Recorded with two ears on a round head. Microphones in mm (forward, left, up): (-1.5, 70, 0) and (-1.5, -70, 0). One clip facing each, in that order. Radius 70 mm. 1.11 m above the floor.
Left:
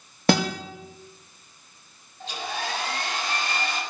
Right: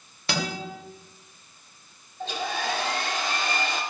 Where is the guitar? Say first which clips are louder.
Left 8 dB; 45° left (ahead or behind), 1.9 m.